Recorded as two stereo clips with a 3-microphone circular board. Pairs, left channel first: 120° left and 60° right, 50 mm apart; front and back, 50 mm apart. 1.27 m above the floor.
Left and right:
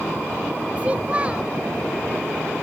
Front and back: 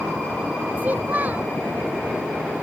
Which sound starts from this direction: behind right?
A child speaking, at 0.8 s.